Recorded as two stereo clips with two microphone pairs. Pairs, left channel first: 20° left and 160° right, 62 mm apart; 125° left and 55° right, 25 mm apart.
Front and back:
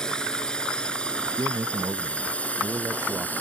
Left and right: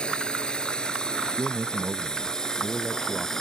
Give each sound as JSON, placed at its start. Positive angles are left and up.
{"t": 0.0, "sound": "a drone", "azimuth_deg": 95}
{"t": 1.3, "sound": "a man speaking", "azimuth_deg": -110}